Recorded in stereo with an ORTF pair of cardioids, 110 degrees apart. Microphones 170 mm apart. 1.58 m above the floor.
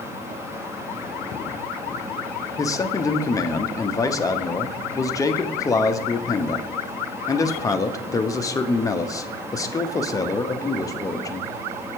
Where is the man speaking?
20° left, 0.7 m.